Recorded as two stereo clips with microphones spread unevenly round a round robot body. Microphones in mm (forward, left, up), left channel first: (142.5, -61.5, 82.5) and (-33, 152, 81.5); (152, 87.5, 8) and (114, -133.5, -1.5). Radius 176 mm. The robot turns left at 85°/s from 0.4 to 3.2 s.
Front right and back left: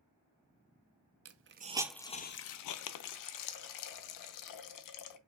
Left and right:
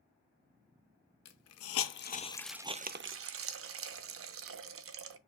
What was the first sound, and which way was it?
A hiss, 95° left.